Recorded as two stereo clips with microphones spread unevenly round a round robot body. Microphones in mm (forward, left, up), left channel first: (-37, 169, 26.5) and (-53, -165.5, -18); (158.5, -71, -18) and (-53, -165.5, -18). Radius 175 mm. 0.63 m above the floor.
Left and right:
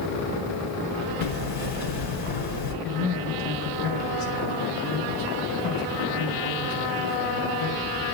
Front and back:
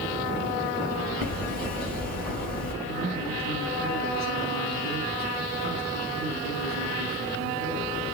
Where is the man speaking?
150° left, 4 m.